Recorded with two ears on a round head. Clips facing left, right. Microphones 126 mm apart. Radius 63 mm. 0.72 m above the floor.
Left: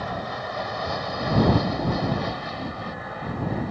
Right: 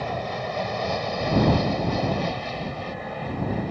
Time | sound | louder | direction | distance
0.0 | an aircraft | right 2 dB | 20° right (ahead or behind) | ?